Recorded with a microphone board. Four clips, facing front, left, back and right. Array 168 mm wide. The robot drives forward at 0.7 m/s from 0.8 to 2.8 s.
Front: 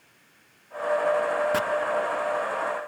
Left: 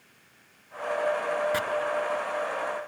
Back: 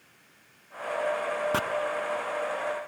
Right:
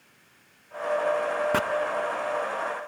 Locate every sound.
1.5 s chopping: 115° right, 0.5 m; by 1.6 s 120° right, 0.5 m